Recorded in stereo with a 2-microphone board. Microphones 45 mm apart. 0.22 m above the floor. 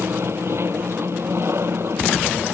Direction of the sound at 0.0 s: 65° right (ahead or behind).